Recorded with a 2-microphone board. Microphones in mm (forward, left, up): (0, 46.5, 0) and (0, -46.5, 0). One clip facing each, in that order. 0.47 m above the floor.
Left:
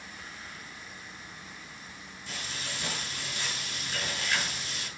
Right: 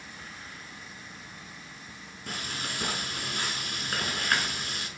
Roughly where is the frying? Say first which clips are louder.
Right 4 dB; right.